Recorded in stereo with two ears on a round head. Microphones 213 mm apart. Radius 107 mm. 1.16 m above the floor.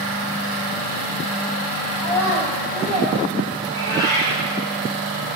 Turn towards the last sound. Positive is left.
turn(degrees=15)  # may be behind; listen again after turning